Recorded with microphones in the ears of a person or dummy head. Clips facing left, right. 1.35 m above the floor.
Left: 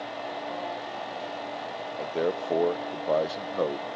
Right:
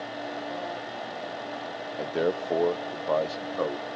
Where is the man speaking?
15° right (ahead or behind), 0.5 m; by 3.9 s 25° left (ahead or behind), 1.3 m.